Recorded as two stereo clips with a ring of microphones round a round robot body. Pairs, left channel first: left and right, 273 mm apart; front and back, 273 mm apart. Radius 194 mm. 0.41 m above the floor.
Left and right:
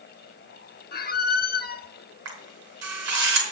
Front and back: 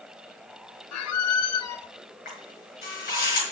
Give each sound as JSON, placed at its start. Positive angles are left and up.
{"t": 0.9, "sound": "a squeak", "azimuth_deg": 30, "distance_m": 0.7}
{"t": 2.2, "sound": "a camera shutter", "azimuth_deg": -65, "distance_m": 5.0}